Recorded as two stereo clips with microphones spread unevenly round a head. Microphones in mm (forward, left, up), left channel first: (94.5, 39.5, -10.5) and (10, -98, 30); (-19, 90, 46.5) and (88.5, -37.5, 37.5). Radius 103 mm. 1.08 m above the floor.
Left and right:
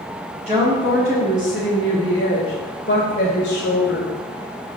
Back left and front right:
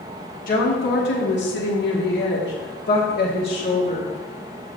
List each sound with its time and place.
0.5 s a woman speaking: 170° left, 1.7 m; by 4.1 s 85° left, 2.5 m